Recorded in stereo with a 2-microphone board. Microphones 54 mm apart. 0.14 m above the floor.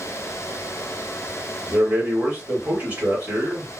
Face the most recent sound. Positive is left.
turn(degrees=-30)  # may be behind; listen again after turning